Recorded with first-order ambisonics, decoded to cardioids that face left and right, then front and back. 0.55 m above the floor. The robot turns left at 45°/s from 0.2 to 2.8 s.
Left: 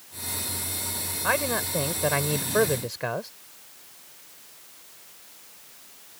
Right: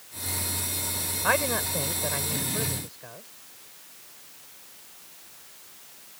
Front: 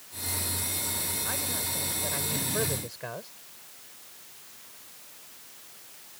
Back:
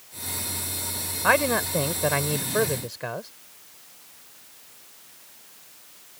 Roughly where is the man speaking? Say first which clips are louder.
Even, back 12 dB; behind.